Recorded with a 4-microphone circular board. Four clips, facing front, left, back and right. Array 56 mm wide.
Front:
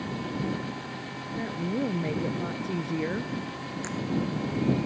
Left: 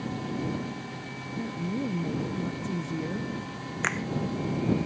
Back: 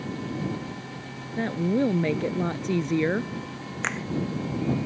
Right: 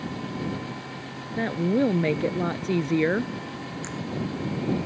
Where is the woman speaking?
115° right.